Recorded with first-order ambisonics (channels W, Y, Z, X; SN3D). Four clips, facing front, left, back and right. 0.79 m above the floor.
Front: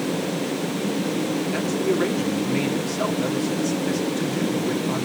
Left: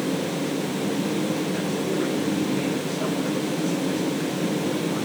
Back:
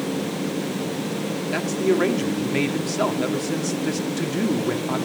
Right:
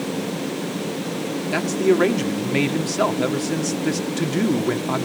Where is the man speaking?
110° right, 2 m.